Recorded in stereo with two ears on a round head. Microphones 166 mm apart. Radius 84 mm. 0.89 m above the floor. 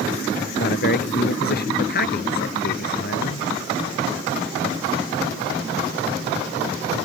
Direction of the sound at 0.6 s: 60° left (ahead or behind).